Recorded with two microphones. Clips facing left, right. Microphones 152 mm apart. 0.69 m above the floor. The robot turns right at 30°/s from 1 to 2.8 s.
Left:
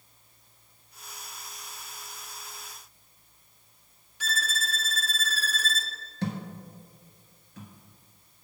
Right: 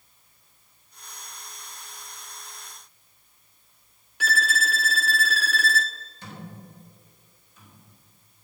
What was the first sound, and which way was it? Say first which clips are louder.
A violin: right 8 dB; 70° right (ahead or behind).